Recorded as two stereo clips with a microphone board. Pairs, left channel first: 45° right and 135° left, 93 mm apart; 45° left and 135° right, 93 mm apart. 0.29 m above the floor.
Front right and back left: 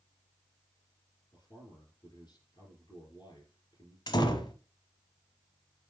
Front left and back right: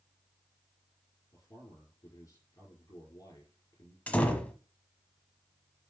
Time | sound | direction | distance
1.3 | a man speaking | 5° right | 5.5 m
4.1 | a door slam | 25° right | 1.2 m